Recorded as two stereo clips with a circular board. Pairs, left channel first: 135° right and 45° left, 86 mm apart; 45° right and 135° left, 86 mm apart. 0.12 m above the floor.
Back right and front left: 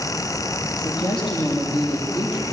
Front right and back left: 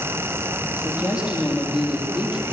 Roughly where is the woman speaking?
Behind right.